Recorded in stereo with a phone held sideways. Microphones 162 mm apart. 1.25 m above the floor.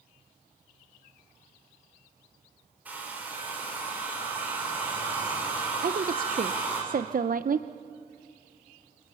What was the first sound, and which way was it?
A hair dryer, 10° right (ahead or behind).